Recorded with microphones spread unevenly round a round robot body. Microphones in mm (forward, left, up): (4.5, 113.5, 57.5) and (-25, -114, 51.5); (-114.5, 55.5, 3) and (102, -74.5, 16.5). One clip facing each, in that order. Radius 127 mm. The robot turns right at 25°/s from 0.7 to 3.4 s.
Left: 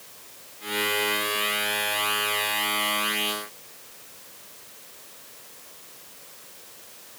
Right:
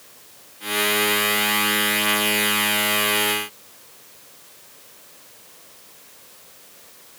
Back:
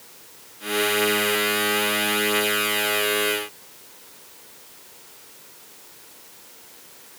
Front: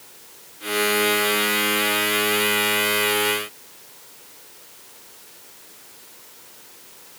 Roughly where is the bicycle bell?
I don't hear a bicycle bell.